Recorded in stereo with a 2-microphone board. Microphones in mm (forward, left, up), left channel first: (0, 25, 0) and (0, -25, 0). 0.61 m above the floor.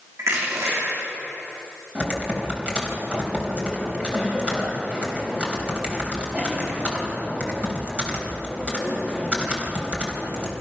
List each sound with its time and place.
0.2 s crushing: 85° right, 8.5 m
1.9 s typing on a keyboard: 25° right (ahead or behind), 4 m